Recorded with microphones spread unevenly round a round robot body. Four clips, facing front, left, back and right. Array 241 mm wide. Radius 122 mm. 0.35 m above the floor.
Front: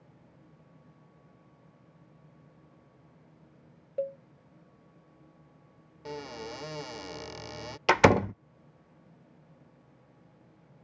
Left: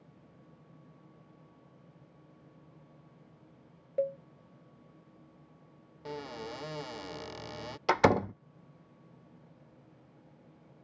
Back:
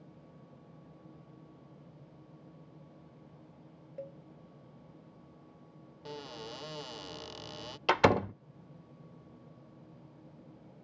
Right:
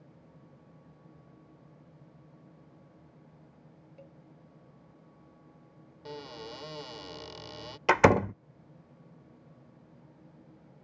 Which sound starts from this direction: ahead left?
A cowbell, at 4.0 s.